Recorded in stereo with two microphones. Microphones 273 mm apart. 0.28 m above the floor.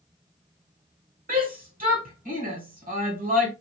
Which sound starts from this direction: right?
A shout, at 1.3 s.